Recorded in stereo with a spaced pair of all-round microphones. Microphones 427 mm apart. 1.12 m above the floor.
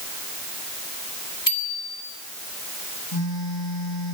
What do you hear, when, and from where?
1.5 s a bicycle bell: 45° left (ahead or behind), 4 m
3.1 s a phone buzzing: 80° left, 7 m